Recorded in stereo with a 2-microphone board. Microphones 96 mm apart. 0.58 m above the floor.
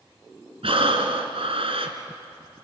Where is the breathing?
85° right, 1.9 m.